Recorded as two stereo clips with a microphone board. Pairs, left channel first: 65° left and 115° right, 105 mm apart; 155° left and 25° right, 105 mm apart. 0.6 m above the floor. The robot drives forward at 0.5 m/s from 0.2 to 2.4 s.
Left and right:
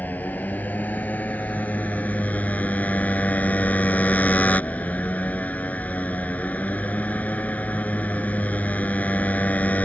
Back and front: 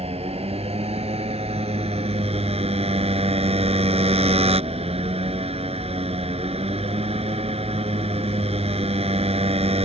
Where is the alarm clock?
I don't hear an alarm clock.